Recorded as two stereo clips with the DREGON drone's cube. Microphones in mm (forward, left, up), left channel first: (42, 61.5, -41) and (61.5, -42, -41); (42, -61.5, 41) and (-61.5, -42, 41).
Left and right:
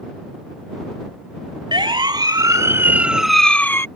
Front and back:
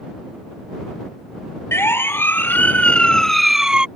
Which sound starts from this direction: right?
A siren, at 1.7 s.